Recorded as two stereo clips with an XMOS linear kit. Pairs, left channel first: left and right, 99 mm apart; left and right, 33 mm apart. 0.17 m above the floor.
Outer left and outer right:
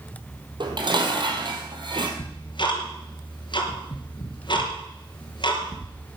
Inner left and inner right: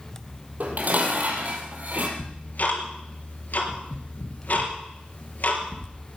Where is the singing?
No singing in this recording.